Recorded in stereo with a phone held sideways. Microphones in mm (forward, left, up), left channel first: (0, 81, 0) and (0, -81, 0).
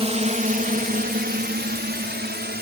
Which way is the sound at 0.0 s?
40° right (ahead or behind).